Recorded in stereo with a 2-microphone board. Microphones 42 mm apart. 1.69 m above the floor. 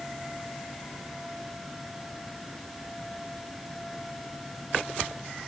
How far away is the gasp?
I don't hear a gasp.